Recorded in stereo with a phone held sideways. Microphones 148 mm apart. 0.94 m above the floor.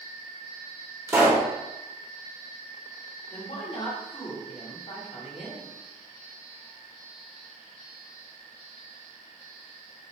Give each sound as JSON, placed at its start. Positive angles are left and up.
{"t": 1.1, "sound": "a pop", "side_deg": -15, "distance_m": 1.3}
{"t": 3.3, "sound": "a woman speaking", "side_deg": 45, "distance_m": 1.4}